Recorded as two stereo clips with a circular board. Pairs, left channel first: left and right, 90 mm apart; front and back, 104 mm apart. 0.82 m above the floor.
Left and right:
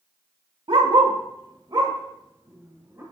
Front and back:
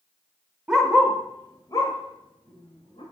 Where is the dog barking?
100° right, 1.1 m; by 3.0 s 30° right, 2.5 m.